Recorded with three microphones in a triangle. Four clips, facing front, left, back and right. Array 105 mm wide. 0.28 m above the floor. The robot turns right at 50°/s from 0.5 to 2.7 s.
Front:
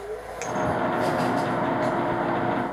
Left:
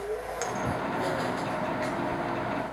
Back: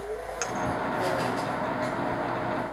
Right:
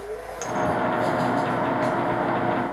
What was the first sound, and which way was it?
A clink, 175° left.